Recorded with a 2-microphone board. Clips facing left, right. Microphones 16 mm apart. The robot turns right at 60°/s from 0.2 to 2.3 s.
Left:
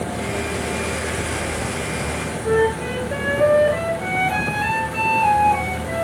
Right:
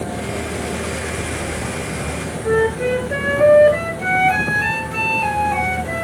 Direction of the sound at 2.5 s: 25° right (ahead or behind).